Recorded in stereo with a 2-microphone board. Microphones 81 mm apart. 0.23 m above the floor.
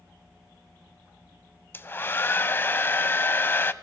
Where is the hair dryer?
30° left (ahead or behind), 0.5 m.